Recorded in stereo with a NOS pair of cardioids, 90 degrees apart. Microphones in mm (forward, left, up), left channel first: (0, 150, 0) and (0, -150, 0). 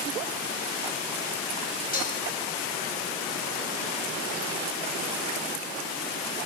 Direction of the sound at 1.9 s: 30° left.